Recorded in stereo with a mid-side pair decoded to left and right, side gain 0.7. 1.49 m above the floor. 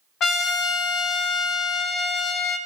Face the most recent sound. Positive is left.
turn(degrees=45)